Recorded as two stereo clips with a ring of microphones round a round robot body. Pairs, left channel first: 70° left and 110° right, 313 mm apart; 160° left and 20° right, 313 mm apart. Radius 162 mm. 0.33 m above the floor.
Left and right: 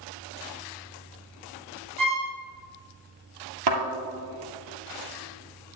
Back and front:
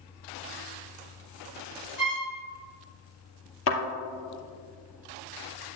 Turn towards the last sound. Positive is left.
turn(degrees=-150)